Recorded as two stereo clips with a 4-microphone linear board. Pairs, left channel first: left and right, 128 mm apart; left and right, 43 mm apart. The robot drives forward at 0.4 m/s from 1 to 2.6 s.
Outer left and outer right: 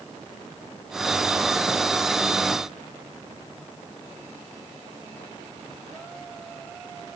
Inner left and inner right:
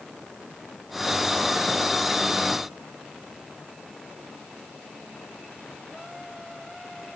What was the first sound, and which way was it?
Only background noise.